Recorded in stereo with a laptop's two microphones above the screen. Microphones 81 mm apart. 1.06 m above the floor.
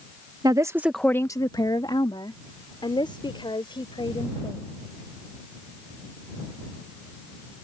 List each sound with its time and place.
0.4 s a woman speaking: 50° right (ahead or behind); by 4.7 s 85° left